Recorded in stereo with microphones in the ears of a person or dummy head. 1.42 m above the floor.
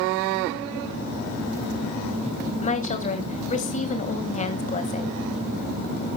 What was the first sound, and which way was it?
A woman speaking, 35° left (ahead or behind).